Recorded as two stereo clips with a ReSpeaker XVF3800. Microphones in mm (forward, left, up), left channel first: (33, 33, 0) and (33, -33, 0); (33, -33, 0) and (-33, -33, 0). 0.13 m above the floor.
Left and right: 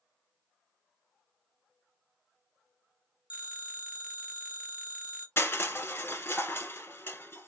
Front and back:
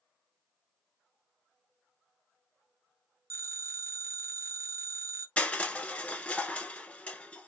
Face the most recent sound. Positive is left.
turn(degrees=60)